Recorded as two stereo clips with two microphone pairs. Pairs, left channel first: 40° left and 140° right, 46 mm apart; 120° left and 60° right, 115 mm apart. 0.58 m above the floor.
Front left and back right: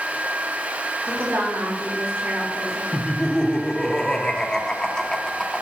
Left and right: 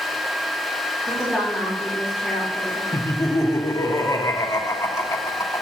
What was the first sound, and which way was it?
A woman speaking, 140° right.